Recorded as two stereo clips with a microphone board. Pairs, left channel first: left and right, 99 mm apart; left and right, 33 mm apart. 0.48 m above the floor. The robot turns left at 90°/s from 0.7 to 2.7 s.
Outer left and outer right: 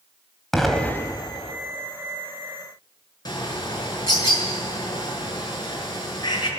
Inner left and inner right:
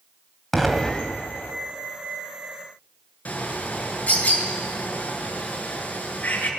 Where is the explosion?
Straight behind, 2.5 m; by 1.5 s 100° left, 2.5 m.